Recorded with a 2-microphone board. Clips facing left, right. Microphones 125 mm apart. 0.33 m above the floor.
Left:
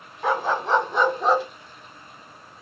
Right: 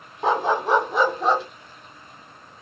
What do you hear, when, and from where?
0.2 s a dog barking: 30° right (ahead or behind), 0.7 m; by 1.4 s centre (ahead or behind), 1.1 m